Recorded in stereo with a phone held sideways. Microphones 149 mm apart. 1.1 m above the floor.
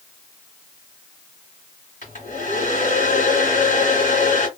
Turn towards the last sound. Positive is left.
turn(degrees=60)  # may be behind; listen again after turning